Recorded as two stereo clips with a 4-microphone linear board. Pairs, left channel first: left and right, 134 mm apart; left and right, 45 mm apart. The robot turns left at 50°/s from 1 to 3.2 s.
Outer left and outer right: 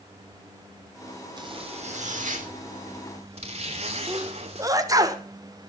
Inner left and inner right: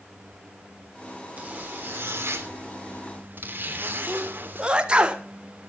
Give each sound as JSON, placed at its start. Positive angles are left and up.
{"t": 1.4, "sound": "a zipper", "azimuth_deg": -35, "distance_m": 3.0}
{"t": 4.1, "sound": "a sneeze", "side_deg": -25, "distance_m": 1.4}